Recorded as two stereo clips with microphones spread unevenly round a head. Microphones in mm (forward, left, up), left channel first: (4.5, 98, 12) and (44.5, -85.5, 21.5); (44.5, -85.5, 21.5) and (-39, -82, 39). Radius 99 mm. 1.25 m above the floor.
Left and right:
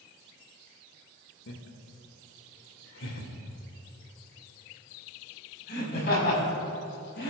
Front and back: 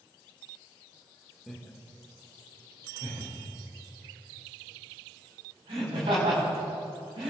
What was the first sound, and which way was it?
Laughter, 80° left.